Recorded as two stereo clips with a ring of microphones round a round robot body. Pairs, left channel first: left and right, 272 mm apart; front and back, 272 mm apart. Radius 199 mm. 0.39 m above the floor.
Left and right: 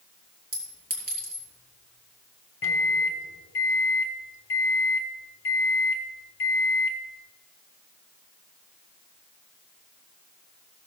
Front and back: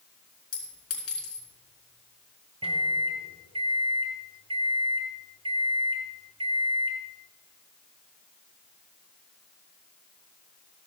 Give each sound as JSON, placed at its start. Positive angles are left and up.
{"t": 0.5, "sound": "a clink", "azimuth_deg": -35, "distance_m": 4.0}
{"t": 2.6, "sound": "a microwave", "azimuth_deg": 115, "distance_m": 0.9}